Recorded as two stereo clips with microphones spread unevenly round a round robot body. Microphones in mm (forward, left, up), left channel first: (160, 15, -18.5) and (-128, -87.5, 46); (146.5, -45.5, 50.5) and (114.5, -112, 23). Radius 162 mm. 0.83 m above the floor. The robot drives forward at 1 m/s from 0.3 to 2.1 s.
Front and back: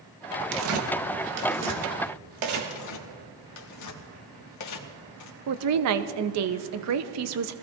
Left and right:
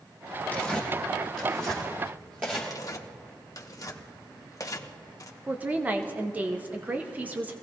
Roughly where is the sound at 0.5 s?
Behind left.